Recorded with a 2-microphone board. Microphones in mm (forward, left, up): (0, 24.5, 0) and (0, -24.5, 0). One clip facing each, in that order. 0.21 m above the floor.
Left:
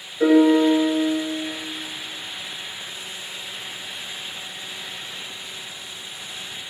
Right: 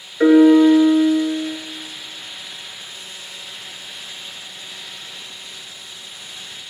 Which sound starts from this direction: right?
A piano, at 0.2 s.